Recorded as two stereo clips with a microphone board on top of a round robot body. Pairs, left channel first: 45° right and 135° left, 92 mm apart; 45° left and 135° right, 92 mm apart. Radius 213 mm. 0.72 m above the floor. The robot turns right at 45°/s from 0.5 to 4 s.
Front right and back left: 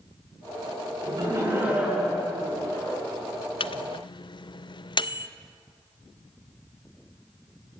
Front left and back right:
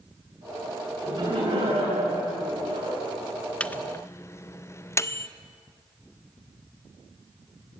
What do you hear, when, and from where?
1.0 s laughter: 175° left, 10 m; by 3.0 s 95° right, 10 m
3.6 s a microwave: 30° right, 0.7 m; by 5.3 s 15° right, 0.7 m